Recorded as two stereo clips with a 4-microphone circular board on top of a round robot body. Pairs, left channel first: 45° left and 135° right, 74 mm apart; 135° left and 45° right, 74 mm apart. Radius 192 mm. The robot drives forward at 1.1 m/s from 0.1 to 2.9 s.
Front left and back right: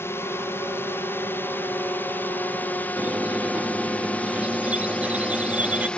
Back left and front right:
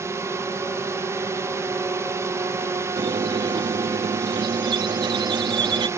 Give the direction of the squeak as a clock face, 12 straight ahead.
2 o'clock.